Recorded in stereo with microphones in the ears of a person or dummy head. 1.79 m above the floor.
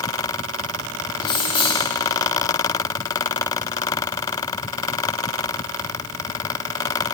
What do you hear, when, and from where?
1.2 s keys jangling: 30° left (ahead or behind), 1.4 m